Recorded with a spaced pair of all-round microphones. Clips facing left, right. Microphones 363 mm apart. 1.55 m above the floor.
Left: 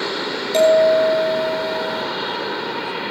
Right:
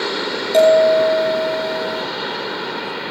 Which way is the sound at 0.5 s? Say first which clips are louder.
Right 2 dB; 10° left (ahead or behind).